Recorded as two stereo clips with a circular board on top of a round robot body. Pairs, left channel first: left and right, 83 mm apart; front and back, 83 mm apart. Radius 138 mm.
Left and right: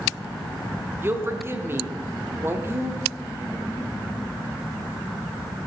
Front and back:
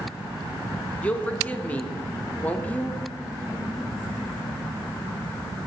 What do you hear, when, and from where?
1.0 s a woman speaking: 60° right, 1.0 m